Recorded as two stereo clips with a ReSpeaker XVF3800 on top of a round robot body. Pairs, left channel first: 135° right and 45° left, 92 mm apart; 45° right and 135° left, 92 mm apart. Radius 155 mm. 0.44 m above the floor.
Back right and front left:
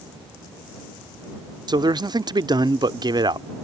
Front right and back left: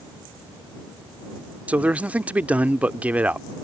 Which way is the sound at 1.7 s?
65° left.